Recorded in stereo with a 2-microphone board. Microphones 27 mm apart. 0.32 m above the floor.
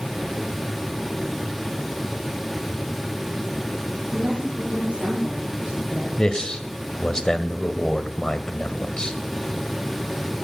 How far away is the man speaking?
About 1.3 m.